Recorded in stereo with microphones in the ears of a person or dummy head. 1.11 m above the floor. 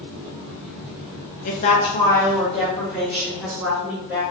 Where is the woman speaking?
40° left (ahead or behind), 0.7 m; by 4.2 s 10° right (ahead or behind), 2.0 m.